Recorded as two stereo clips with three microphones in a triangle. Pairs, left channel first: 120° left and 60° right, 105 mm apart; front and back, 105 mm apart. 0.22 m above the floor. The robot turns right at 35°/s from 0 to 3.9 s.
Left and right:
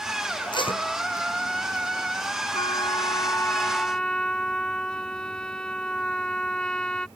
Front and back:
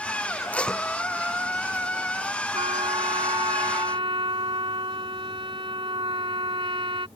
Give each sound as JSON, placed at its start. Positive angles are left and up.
{"t": 0.5, "sound": "tape being pulled", "azimuth_deg": 75}
{"t": 2.5, "sound": "a trumpet", "azimuth_deg": 155}